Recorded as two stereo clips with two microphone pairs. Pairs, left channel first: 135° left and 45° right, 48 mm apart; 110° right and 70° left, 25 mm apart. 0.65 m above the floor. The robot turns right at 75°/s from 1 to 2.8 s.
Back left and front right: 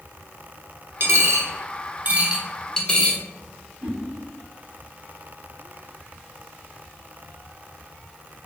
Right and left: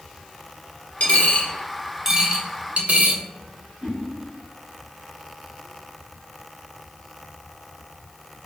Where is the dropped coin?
80° right, 0.6 m; by 3.2 s 55° left, 0.6 m.